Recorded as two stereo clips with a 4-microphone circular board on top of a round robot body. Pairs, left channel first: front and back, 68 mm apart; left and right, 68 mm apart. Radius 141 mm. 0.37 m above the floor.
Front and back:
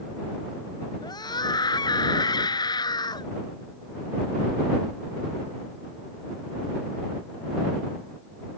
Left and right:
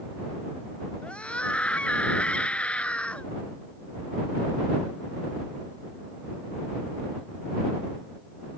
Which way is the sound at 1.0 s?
15° left.